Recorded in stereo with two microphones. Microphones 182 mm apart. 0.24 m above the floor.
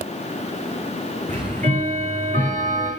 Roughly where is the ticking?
Right.